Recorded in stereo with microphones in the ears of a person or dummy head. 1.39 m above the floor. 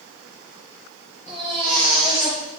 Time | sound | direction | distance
1.3 | a baby crying | 35° left (ahead or behind) | 8.5 m